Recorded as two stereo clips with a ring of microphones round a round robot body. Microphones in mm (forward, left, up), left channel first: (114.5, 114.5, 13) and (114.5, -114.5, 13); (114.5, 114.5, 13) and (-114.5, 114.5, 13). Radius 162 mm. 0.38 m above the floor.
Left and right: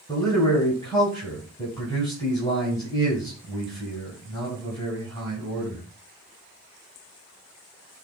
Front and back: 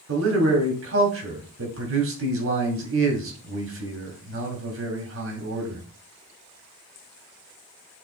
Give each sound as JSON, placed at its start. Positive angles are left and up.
{"t": 0.1, "sound": "a man speaking", "azimuth_deg": 165, "distance_m": 2.5}